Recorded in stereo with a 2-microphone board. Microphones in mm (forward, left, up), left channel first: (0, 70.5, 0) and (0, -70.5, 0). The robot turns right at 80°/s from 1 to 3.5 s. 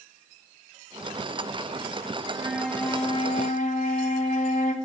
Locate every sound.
2.3 s a flute: 30° right, 2.5 m; by 4.8 s 70° left, 2.5 m